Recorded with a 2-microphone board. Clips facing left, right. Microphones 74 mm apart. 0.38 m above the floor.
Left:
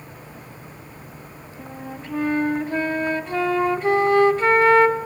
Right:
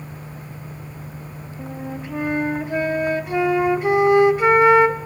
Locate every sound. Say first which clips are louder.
1.6 s a flute: right 4 dB; 10° right (ahead or behind), 1.1 m